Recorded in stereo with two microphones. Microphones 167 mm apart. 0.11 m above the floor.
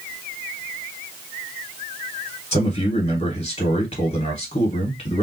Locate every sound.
2.5 s a man speaking: 40° left (ahead or behind), 1.5 m